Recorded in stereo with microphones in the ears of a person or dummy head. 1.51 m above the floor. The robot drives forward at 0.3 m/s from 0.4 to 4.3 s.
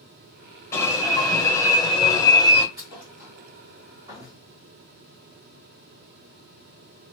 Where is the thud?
15° right (ahead or behind), 1.7 m.